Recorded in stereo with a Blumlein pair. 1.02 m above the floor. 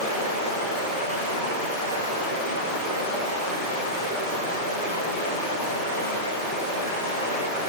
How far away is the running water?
About 1.8 m.